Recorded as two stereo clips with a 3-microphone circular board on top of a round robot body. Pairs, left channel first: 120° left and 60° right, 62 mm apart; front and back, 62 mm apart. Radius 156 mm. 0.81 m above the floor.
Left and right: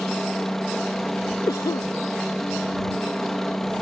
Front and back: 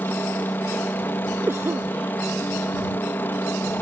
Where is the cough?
130° left.